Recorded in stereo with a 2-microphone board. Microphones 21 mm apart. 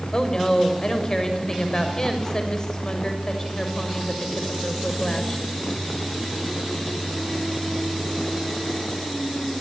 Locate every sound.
0.1 s a woman speaking: 30° left (ahead or behind), 6 m